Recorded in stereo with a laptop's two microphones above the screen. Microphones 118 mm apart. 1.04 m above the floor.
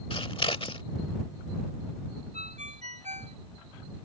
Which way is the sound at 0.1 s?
50° left (ahead or behind).